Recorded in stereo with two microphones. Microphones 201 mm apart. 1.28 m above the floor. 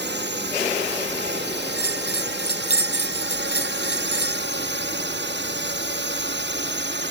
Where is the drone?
60° right (ahead or behind).